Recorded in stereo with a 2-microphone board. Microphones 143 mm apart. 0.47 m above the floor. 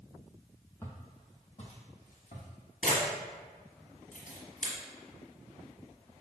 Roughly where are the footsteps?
Centre.